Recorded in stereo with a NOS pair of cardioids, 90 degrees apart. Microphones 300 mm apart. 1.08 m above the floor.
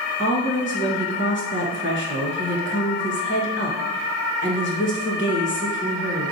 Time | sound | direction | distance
0.2 | a woman speaking | 40° left | 1.2 m